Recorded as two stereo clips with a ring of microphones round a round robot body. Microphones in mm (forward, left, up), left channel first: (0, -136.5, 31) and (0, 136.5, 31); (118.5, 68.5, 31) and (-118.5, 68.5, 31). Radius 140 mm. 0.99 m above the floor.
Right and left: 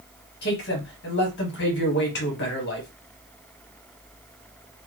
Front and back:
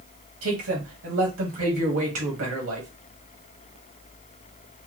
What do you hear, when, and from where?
0.4 s a man speaking: 140° right, 1.3 m